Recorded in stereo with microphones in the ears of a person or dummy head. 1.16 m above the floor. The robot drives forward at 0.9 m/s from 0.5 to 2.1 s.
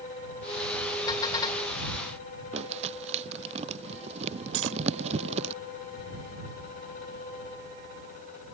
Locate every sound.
1.1 s a car horn: 25° left (ahead or behind)
2.5 s crumpling: 35° right (ahead or behind)
4.5 s cutlery clinking: 80° right